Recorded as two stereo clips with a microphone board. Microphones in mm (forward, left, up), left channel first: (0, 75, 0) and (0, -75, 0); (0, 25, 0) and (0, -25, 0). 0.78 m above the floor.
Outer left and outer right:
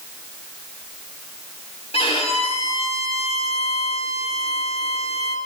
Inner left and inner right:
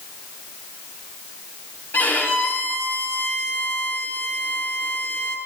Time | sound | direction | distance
1.9 | a violin | 40° left (ahead or behind) | 1.8 m